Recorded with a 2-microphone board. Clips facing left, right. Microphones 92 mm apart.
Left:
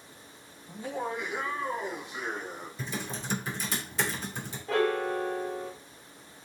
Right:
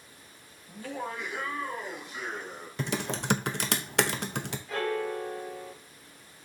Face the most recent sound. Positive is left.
turn(degrees=80)